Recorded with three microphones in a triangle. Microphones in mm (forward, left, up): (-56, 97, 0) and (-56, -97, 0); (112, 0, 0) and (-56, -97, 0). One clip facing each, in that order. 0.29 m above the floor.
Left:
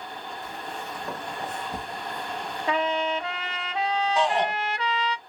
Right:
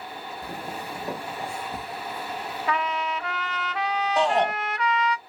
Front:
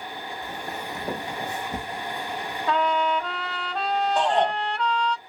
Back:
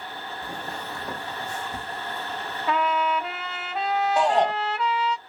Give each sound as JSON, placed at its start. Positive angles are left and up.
{"t": 0.4, "sound": "footsteps", "azimuth_deg": -80, "distance_m": 0.6}
{"t": 2.7, "sound": "a trumpet", "azimuth_deg": 130, "distance_m": 0.9}
{"t": 4.2, "sound": "a shout", "azimuth_deg": -75, "distance_m": 1.3}